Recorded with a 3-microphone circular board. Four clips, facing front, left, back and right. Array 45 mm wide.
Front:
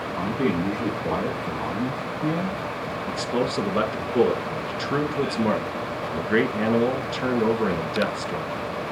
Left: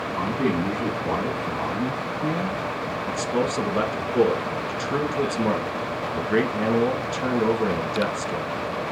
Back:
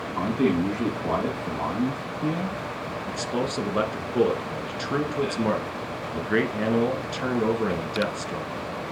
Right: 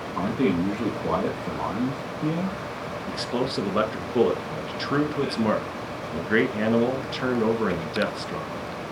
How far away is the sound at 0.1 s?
About 5.5 m.